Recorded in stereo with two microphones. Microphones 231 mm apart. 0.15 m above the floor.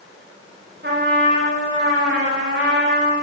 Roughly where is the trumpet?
Right.